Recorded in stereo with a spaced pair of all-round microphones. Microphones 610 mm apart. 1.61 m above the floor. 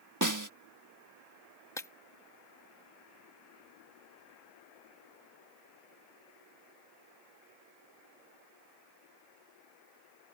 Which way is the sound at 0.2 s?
30° right (ahead or behind).